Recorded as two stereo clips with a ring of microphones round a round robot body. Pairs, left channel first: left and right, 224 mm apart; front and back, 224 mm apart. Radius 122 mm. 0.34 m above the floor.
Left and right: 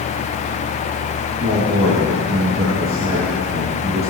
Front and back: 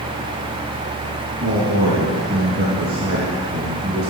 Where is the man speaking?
135° right, 4.5 m.